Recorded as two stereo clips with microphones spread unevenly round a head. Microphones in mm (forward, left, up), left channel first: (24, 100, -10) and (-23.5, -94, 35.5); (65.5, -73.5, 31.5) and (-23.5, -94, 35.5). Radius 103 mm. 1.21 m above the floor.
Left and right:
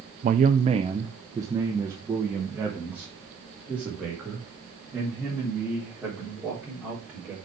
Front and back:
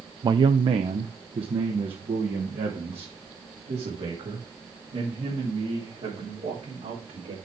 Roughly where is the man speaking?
Behind right.